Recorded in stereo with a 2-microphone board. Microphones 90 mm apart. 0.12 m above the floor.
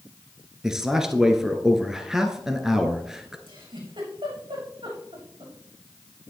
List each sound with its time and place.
0.6 s a man speaking: 5° right (ahead or behind), 1.6 m
3.5 s a giggle: 75° right (ahead or behind), 7 m